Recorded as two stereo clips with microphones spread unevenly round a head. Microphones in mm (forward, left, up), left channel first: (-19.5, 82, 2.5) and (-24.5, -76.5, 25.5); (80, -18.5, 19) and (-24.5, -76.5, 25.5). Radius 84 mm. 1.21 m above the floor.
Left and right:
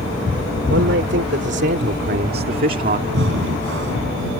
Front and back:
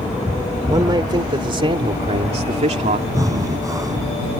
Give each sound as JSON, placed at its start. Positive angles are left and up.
{"t": 0.7, "sound": "a man speaking", "azimuth_deg": -95}
{"t": 3.1, "sound": "breathing", "azimuth_deg": -90}